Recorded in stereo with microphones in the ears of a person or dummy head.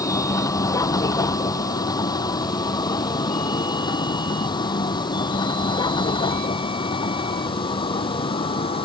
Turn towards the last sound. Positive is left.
turn(degrees=30)  # may be behind; listen again after turning